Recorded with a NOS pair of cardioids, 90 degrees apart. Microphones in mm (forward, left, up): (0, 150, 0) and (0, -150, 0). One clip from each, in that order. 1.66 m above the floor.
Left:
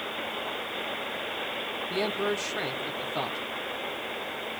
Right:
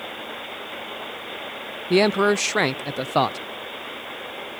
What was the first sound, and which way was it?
A man speaking, 65° right.